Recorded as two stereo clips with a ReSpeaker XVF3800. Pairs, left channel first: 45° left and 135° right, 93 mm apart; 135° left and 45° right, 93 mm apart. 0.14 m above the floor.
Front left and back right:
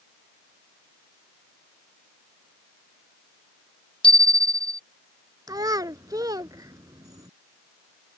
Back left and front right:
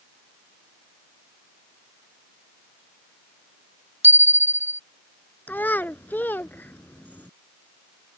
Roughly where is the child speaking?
Behind.